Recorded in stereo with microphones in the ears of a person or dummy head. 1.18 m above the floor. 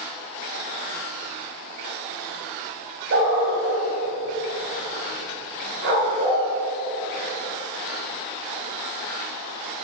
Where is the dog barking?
55° right (ahead or behind), 3 m; by 6.4 s 50° right (ahead or behind), 5.5 m.